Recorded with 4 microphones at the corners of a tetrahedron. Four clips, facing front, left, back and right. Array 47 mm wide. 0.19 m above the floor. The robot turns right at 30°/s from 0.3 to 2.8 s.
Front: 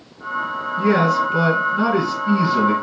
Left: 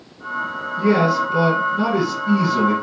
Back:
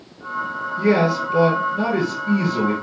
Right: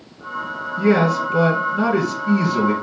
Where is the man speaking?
60° right, 1.9 m; by 2.7 s straight ahead, 1.9 m.